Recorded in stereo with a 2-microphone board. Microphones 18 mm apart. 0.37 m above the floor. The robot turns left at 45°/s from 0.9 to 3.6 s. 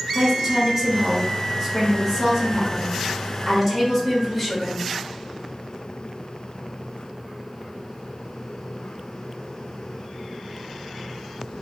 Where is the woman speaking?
15° right (ahead or behind), 1.0 m; by 4.8 s 10° right (ahead or behind), 1.0 m.